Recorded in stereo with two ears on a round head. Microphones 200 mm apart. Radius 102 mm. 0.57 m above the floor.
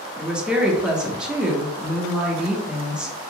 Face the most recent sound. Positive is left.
turn(degrees=-5)  # may be behind; listen again after turning